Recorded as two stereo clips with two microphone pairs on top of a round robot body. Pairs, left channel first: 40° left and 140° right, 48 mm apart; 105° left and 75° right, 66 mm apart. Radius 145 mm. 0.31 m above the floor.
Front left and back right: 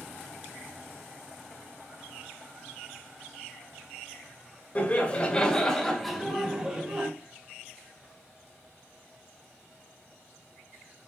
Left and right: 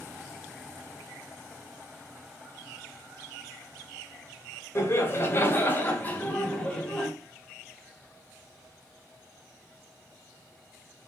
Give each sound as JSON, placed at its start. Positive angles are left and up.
{"t": 4.8, "sound": "laughter", "azimuth_deg": 75, "distance_m": 1.5}